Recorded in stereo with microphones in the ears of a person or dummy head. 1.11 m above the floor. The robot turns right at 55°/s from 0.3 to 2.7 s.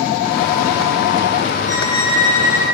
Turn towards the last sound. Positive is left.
turn(degrees=30)